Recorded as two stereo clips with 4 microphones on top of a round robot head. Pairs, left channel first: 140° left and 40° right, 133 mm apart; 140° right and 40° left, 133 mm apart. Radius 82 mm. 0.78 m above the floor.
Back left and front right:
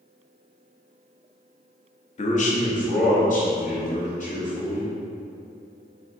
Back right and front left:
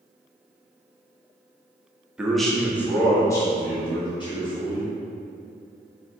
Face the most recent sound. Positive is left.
turn(degrees=170)